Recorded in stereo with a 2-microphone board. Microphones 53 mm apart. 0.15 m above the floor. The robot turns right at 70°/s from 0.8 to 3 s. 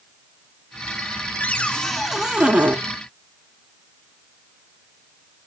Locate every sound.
1.4 s a cupboard door: 135° left, 0.5 m; by 2.8 s 130° right, 0.5 m